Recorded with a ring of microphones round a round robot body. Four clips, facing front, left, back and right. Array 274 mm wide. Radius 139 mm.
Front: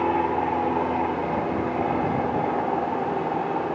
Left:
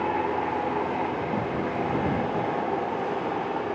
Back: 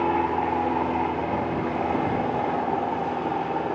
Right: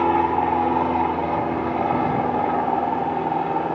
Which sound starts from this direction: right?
An aircraft, at 0.0 s.